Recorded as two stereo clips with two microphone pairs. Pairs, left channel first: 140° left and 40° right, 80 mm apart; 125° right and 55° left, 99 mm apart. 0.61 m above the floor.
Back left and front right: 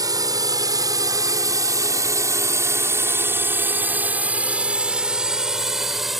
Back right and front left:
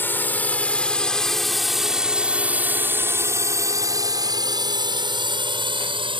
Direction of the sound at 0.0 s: 60° right.